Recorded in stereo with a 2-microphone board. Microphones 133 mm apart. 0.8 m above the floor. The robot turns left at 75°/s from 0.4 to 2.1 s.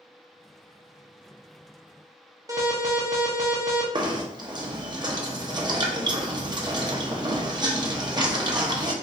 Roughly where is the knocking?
Right.